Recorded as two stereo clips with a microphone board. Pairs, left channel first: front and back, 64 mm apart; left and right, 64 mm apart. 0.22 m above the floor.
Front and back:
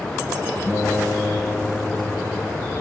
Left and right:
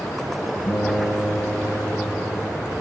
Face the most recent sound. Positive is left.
turn(degrees=100)